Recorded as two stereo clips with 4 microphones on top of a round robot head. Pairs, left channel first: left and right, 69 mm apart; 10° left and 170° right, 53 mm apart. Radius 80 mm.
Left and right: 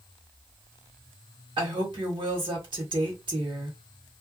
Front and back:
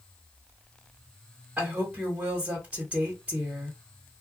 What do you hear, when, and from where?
1.6 s a woman speaking: 105° right, 1.4 m